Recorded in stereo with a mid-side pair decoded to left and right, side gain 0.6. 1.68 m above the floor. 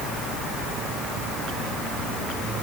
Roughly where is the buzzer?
I don't hear a buzzer.